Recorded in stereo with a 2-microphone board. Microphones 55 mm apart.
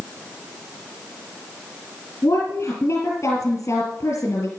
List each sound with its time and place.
2.2 s a woman speaking: 55° left (ahead or behind), 3.5 m